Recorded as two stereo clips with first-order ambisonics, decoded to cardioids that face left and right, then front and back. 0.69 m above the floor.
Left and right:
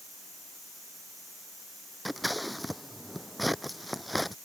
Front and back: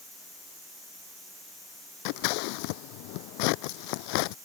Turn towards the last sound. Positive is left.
turn(degrees=0)